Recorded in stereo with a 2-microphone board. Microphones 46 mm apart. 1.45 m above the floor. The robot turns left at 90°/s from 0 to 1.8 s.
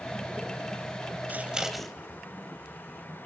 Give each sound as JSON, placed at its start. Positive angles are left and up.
{"t": 1.3, "sound": "scissors", "side_deg": -40, "distance_m": 2.5}